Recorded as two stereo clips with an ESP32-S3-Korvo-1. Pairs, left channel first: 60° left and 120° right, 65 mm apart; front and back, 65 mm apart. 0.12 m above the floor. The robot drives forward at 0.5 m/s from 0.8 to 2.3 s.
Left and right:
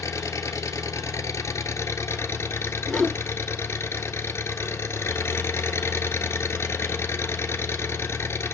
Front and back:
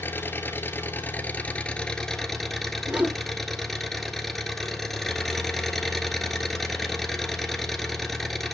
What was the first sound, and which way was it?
An engine running, 50° left.